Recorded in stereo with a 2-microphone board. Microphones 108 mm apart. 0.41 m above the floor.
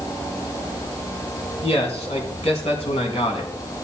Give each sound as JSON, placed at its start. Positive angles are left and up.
{"t": 1.6, "sound": "a man speaking", "side_deg": 75, "distance_m": 4.5}